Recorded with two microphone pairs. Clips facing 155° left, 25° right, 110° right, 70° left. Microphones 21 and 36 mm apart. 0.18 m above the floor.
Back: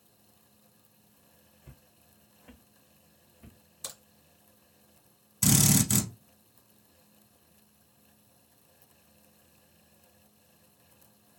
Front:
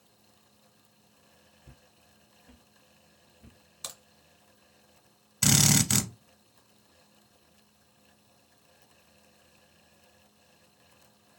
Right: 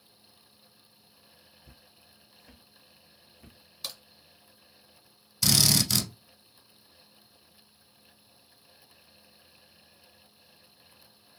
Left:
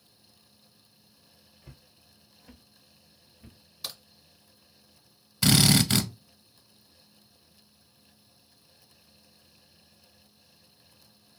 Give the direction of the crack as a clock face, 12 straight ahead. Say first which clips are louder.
Front 1 dB, even; 1 o'clock.